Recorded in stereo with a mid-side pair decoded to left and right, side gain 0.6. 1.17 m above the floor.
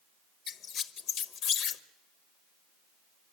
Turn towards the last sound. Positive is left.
turn(degrees=55)